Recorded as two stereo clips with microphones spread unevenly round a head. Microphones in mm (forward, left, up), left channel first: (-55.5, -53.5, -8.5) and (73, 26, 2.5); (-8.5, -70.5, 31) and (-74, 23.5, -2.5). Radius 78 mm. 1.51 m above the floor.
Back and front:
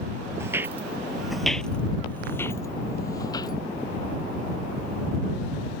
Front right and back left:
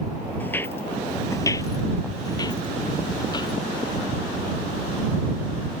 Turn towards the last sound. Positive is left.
turn(degrees=-85)